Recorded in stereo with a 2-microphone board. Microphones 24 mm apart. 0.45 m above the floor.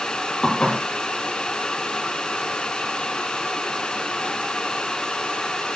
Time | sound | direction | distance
0.4 | dishes clattering | 30° left (ahead or behind) | 6 m